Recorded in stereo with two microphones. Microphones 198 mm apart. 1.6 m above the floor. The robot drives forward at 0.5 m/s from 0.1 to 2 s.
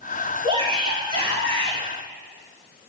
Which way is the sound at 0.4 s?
35° right (ahead or behind).